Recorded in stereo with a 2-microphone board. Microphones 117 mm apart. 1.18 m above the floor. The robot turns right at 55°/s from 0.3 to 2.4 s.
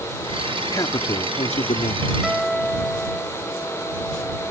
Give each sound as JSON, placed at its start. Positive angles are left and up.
{"t": 0.7, "sound": "a man speaking", "azimuth_deg": 30}
{"t": 2.2, "sound": "a guitar", "side_deg": -5}